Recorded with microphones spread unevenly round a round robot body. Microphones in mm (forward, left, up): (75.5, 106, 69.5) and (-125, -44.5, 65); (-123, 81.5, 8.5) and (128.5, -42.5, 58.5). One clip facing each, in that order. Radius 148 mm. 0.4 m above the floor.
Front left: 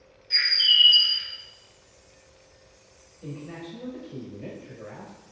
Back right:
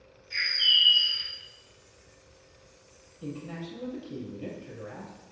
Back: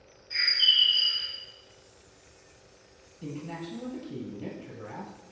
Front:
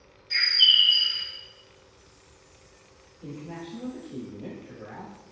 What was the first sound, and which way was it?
A bird, 5° left.